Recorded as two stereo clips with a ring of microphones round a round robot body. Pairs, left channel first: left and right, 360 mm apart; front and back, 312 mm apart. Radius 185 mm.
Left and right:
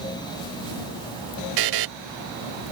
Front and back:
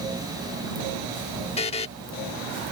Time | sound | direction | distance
1.6 | a buzzer | 70° right | ?